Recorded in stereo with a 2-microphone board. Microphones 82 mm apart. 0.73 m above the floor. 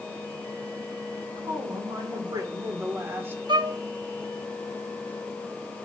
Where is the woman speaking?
70° right (ahead or behind), 3.5 m; by 3.4 s 25° right (ahead or behind), 2.5 m.